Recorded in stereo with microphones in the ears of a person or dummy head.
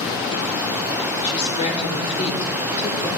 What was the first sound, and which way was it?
A woman speaking, 40° left (ahead or behind).